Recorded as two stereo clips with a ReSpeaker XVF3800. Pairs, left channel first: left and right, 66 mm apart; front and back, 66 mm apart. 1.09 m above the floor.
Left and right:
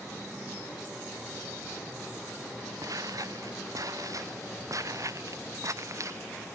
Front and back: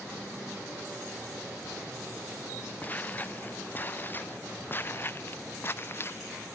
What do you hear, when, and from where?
2.8 s footsteps: 65° right; by 6.2 s 50° right